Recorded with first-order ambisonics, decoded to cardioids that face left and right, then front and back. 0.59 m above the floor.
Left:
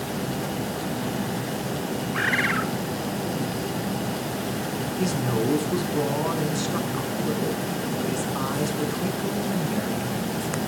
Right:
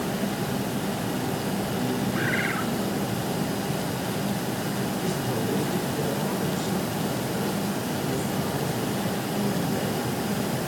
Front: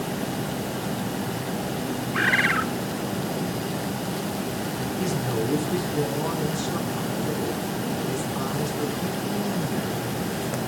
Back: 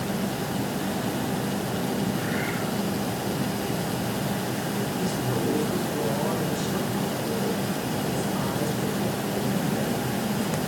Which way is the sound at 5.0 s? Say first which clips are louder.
Left 3 dB, front 3 dB; 85° left.